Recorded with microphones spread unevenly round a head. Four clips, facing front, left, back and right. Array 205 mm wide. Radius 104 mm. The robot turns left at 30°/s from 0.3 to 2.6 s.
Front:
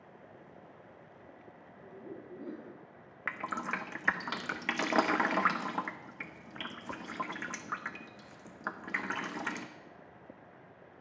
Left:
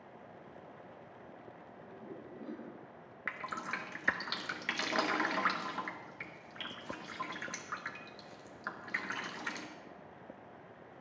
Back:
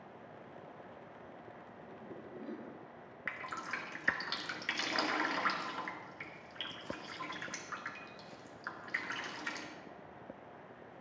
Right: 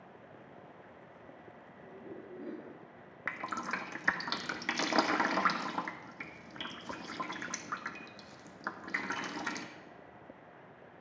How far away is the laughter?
About 4.5 m.